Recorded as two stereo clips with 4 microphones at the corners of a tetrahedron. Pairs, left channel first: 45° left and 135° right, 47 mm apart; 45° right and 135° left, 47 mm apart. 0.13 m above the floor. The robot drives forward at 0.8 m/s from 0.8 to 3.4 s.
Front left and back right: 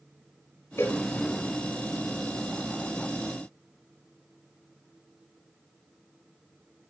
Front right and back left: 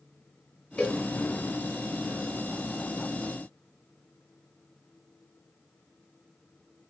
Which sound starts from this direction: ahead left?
A cowbell, at 0.8 s.